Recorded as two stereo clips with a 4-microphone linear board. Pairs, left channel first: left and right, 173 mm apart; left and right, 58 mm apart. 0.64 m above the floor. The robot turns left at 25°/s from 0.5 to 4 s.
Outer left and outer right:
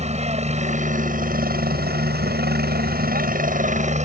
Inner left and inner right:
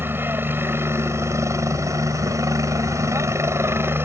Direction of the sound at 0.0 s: 45° right.